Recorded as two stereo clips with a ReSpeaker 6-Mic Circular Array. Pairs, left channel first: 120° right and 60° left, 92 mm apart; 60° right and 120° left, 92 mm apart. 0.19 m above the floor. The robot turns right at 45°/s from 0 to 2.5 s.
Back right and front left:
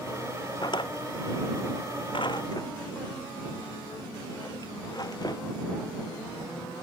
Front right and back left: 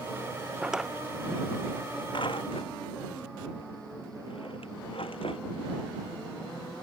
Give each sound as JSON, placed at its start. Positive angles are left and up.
{"t": 0.6, "sound": "a drawer", "azimuth_deg": -160}